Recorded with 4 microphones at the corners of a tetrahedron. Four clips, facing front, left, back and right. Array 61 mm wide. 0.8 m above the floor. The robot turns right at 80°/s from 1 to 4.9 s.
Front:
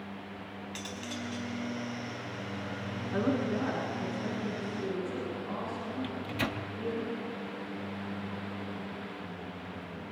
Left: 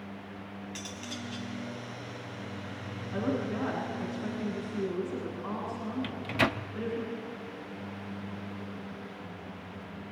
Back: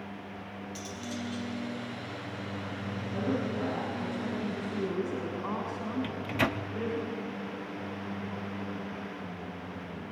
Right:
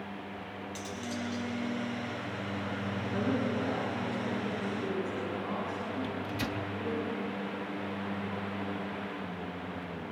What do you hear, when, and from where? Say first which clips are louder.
0.8 s cutlery clinking: right 5 dB, back 1 dB; 35° left, 4 m; by 1.5 s 70° left, 4 m
3.1 s a woman speaking: even, front 2 dB; 25° left, 8.5 m; by 7.0 s 165° left, 8.5 m
6.0 s a microwave: left 5 dB, back 5 dB; 120° left, 0.7 m